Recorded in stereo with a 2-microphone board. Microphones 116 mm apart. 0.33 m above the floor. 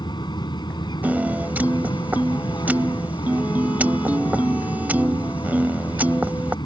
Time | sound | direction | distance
0.0 | an aircraft | 35° left (ahead or behind) | ?
1.0 | a piano | 15° right (ahead or behind) | ?